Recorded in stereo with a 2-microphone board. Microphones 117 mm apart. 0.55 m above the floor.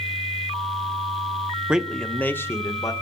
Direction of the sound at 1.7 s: 10° right (ahead or behind).